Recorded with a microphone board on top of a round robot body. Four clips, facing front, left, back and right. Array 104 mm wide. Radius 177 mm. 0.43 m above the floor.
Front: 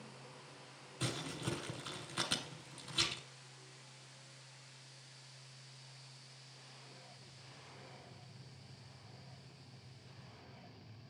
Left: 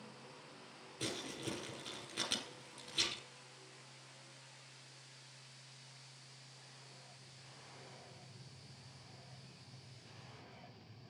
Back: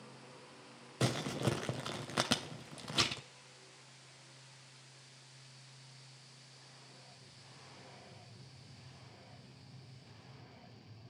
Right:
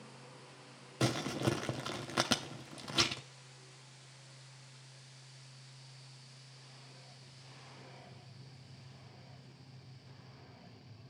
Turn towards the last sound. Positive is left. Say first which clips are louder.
# right 10 dB, back 7 dB
turn(degrees=-130)